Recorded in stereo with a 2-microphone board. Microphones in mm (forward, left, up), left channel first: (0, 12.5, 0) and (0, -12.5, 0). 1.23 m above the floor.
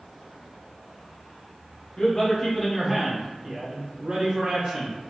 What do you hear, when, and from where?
2.0 s a man speaking: 35° left (ahead or behind), 1.3 m; by 5.0 s 45° right (ahead or behind), 2 m